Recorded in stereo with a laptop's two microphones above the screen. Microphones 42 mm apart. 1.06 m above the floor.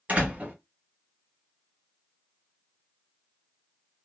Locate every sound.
0.1 s a door slam: 40° right (ahead or behind), 1.7 m